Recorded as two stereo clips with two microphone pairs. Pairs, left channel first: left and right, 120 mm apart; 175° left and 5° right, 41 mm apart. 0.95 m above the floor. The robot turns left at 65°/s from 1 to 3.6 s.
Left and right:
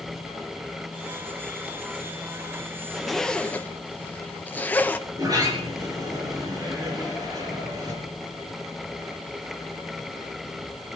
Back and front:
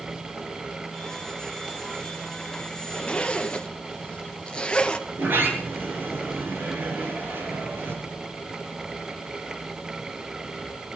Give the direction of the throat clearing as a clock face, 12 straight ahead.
No throat clearing in this recording.